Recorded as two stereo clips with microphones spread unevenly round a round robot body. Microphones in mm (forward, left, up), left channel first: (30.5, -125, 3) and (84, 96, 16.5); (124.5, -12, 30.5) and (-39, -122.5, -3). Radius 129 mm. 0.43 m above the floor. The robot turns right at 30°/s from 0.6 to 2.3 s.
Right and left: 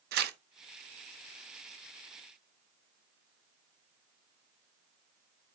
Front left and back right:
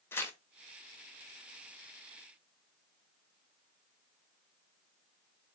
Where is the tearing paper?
120° left, 0.8 m.